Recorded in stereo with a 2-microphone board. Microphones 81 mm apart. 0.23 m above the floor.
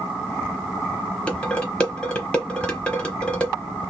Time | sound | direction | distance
1.3 | dishes clattering | 15° left (ahead or behind) | 0.9 m